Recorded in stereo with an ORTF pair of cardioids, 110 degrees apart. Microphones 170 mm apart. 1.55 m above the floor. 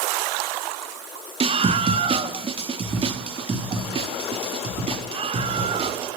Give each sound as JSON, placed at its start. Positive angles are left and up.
{"t": 1.4, "sound": "a scream", "azimuth_deg": -35, "distance_m": 2.0}